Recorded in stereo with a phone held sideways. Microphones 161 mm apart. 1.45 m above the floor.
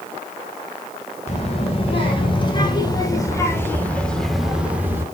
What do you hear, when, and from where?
1.3 s a child speaking: 40° left (ahead or behind), 3.5 m; by 5.0 s 15° right (ahead or behind), 2 m